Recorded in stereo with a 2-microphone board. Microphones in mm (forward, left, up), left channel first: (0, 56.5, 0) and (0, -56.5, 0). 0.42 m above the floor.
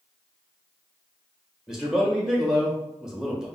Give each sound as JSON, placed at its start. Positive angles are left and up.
{"t": 1.7, "sound": "a man speaking", "side_deg": -5, "distance_m": 1.1}